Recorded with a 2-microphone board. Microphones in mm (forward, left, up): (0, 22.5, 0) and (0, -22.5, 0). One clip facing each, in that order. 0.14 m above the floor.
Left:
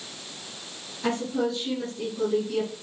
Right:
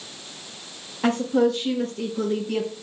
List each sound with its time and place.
1.0 s a woman speaking: 50° right (ahead or behind), 4 m; by 2.7 s 45° right (ahead or behind), 3 m